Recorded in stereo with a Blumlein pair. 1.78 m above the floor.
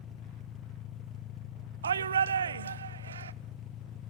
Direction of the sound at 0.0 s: 25° left.